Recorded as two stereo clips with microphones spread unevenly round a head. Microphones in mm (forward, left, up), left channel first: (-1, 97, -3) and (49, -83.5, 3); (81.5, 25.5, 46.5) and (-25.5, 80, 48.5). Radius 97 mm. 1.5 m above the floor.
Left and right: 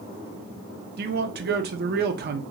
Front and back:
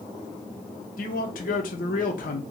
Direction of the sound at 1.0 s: 40° right.